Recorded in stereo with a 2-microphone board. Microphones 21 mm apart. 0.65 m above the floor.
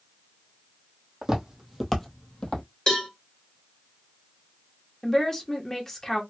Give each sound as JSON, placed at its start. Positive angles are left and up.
{"t": 1.2, "sound": "footsteps", "side_deg": -35, "distance_m": 1.1}
{"t": 2.9, "sound": "a cowbell", "side_deg": 40, "distance_m": 1.4}
{"t": 5.0, "sound": "a woman speaking", "side_deg": 25, "distance_m": 0.9}